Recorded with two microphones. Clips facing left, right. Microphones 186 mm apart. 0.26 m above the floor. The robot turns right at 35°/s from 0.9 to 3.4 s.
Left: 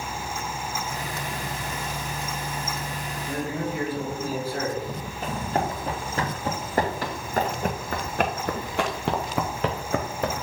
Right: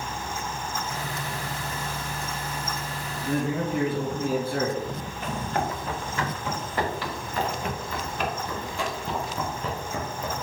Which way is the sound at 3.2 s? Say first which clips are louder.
Right 3 dB; 65° right (ahead or behind).